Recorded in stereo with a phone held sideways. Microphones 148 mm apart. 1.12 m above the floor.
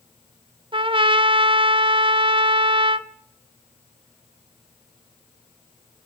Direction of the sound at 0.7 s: 35° right (ahead or behind).